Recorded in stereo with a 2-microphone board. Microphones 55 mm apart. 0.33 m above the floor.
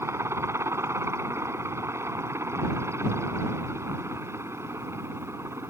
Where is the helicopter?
55° right (ahead or behind).